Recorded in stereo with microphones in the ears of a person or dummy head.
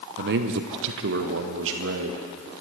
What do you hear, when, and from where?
0.2 s a man speaking: 60° right (ahead or behind), 0.6 m; by 2.2 s 80° right, 1.8 m